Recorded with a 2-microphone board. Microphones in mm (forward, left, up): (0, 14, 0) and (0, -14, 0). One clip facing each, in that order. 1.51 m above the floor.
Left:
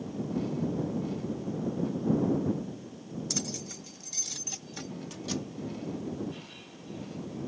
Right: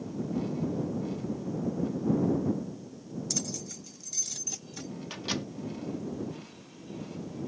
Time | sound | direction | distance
3.3 | keys jangling | 15° left (ahead or behind) | ?
5.1 | a microwave | 40° right (ahead or behind) | ?